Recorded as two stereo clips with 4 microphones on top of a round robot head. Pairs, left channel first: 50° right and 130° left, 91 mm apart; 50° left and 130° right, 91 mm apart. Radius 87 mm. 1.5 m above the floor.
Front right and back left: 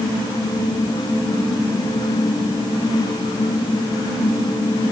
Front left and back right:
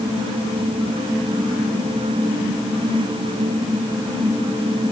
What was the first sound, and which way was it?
Only background noise.